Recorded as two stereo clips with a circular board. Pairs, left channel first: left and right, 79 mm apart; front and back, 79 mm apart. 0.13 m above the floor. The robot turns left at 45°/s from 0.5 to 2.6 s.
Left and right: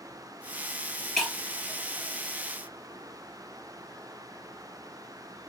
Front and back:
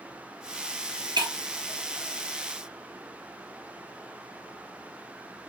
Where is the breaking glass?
175° left, 1.1 m; by 1.3 s 165° left, 1.1 m.